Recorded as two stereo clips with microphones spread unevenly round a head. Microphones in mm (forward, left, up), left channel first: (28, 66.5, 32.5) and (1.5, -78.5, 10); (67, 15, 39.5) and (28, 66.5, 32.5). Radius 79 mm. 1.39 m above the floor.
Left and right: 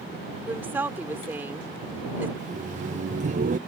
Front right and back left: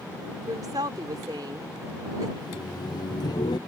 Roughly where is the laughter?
Ahead right.